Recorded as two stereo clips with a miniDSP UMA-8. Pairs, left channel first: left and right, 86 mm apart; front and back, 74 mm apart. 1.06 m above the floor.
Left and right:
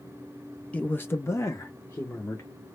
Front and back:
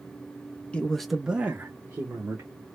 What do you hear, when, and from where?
0.7 s a man speaking: 45° left, 0.6 m; by 2.5 s 135° left, 1.3 m